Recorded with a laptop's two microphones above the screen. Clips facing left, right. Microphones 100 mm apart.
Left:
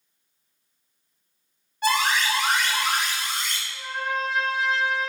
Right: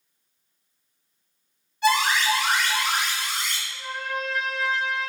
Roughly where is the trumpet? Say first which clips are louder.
Left 5 dB; left.